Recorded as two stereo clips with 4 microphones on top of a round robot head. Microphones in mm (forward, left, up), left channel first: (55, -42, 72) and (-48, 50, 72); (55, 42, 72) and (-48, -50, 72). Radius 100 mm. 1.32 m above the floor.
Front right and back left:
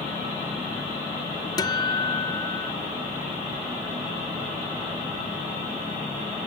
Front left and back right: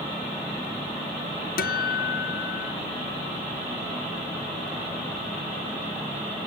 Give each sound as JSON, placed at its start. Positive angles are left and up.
{"t": 1.6, "sound": "a guitar", "azimuth_deg": 20}